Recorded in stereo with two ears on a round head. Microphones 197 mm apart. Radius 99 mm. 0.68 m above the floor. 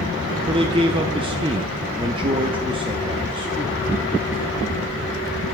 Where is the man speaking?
25° right (ahead or behind), 0.7 m.